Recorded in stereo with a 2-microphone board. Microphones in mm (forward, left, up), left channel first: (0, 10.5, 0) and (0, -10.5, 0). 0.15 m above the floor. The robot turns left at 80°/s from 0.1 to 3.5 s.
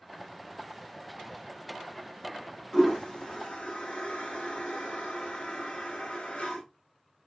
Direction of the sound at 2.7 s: 15° left (ahead or behind).